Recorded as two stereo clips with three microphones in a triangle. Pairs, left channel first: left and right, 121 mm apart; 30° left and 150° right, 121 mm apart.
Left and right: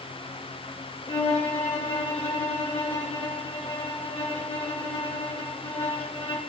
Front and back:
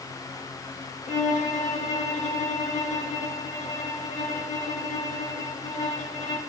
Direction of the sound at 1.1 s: 50° left.